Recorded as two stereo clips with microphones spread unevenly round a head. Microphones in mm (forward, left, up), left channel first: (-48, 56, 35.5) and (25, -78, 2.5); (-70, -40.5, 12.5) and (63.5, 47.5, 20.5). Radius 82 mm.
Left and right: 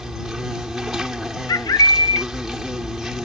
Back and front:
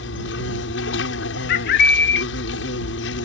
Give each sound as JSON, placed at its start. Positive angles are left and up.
{"t": 0.0, "sound": "an insect", "azimuth_deg": -150}
{"t": 1.5, "sound": "a bird", "azimuth_deg": -175}